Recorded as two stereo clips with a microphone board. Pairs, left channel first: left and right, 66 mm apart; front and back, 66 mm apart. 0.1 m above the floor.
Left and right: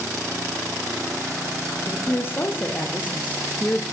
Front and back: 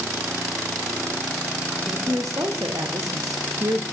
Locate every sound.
1.9 s a woman speaking: 145° left, 6 m; by 3.8 s 165° left, 3.5 m